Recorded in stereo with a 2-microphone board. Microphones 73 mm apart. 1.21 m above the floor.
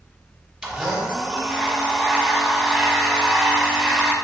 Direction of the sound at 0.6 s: 10° right (ahead or behind).